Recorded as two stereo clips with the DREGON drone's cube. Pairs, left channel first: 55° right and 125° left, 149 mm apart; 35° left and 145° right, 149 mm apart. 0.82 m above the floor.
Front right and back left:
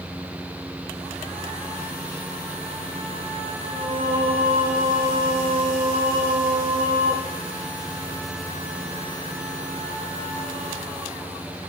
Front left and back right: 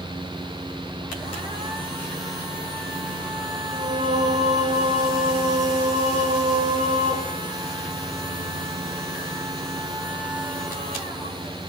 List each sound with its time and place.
3.7 s singing: 175° left, 3 m